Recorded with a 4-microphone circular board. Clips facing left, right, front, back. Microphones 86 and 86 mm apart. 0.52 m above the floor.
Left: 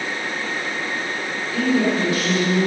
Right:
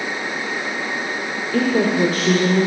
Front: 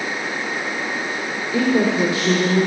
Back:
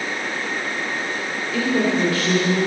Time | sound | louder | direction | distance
1.5 | a woman speaking | right 2 dB, front 3 dB | 60° right | 1.8 m